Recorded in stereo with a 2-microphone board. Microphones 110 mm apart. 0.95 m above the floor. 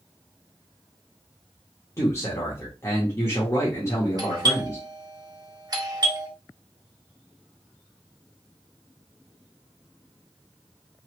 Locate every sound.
2.0 s a man speaking: 25° left (ahead or behind), 1.0 m
4.2 s a doorbell: 40° right (ahead or behind), 0.7 m